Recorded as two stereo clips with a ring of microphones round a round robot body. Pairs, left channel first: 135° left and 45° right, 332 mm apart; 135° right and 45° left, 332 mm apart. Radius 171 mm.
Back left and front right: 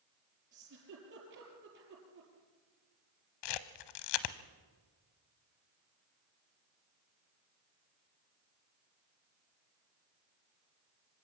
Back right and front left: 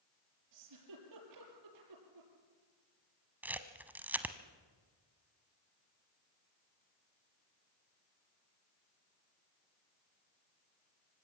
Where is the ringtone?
I don't hear a ringtone.